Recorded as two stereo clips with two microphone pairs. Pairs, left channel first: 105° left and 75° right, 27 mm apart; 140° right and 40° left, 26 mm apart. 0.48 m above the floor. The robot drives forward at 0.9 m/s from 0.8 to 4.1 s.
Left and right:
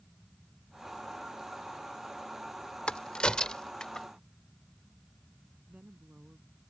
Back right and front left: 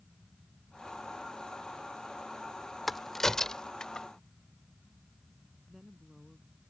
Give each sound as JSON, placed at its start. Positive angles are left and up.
{"t": 2.9, "sound": "a crack", "azimuth_deg": 140}
{"t": 5.7, "sound": "a woman speaking", "azimuth_deg": -35}